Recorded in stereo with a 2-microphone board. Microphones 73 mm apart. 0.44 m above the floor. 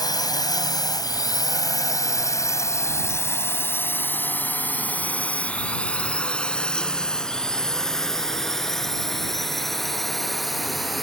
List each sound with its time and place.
0.0 s a drone: 65° left (ahead or behind); by 11.0 s centre (ahead or behind)